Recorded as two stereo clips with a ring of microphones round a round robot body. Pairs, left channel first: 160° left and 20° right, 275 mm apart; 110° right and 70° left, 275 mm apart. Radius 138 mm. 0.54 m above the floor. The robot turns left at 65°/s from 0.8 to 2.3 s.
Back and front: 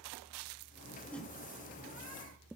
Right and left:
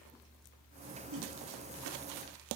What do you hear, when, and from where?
1.1 s a whoosh: 75° left, 1.0 m; by 1.3 s 60° left, 1.0 m